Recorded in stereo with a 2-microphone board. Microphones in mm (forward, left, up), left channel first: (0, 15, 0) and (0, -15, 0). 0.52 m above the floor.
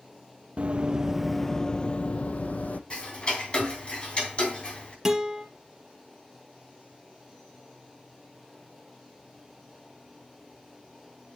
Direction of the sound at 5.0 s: 10° right (ahead or behind).